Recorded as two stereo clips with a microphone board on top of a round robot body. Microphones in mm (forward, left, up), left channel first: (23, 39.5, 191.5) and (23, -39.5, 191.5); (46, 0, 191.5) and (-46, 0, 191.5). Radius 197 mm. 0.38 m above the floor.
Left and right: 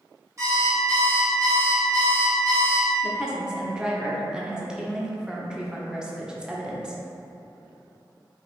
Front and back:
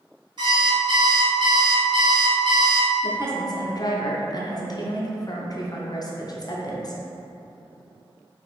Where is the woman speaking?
15° right, 1.0 m.